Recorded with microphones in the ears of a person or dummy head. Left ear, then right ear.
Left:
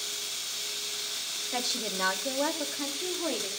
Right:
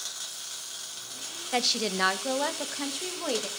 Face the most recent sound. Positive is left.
turn(degrees=-85)